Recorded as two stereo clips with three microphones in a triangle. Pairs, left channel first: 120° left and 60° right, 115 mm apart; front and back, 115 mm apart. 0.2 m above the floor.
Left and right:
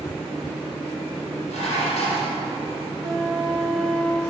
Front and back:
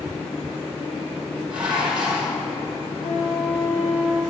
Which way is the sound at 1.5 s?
100° left.